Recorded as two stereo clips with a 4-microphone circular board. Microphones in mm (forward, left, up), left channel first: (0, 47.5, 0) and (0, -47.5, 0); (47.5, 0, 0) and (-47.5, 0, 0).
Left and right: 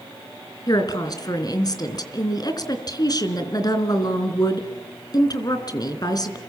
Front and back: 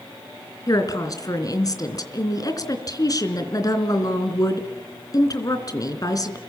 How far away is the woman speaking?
About 3 m.